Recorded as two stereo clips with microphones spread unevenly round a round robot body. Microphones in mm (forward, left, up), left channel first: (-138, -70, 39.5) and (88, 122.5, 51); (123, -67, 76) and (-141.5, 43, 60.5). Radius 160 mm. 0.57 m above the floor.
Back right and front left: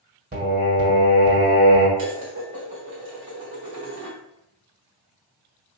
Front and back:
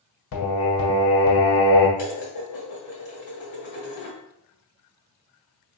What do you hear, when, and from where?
0.3 s singing: 25° right, 1.7 m
2.0 s dishes clattering: 15° right, 1.5 m